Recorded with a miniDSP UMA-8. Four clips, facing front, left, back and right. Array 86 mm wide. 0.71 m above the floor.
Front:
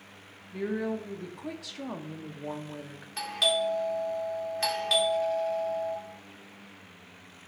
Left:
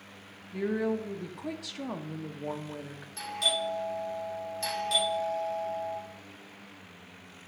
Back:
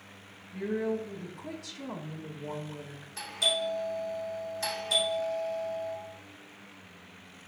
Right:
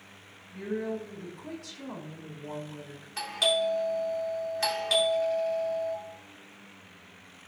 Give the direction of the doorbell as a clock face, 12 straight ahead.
1 o'clock.